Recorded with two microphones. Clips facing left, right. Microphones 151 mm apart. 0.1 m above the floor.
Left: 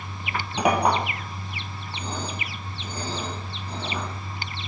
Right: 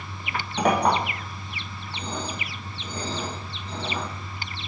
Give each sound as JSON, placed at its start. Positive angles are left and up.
{"t": 0.6, "sound": "a clink", "side_deg": 5, "distance_m": 1.4}